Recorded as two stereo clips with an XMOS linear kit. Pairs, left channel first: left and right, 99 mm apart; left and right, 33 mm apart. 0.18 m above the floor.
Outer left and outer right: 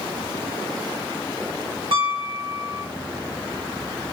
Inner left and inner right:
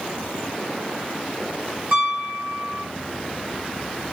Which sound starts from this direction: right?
A piano, at 1.9 s.